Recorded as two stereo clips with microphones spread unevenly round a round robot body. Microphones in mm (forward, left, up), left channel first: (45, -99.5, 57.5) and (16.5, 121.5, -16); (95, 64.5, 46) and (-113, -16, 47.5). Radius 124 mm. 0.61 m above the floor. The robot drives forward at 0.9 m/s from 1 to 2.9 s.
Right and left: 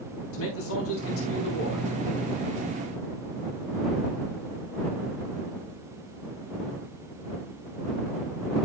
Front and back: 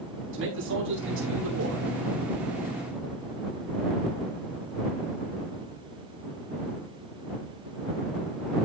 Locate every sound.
0.3 s a man speaking: 120° right, 5.5 m; by 1.9 s 125° right, 6 m